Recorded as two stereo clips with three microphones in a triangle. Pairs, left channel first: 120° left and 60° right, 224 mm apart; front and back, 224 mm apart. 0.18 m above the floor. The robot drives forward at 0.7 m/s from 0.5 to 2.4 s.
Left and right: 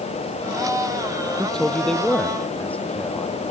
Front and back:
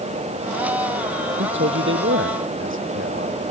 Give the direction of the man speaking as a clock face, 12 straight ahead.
5 o'clock.